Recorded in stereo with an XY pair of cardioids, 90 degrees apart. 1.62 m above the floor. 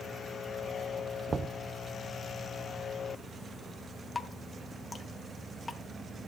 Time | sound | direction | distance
1.3 | knocking | 45° right | 0.7 m
4.2 | dripping | 20° left | 1.8 m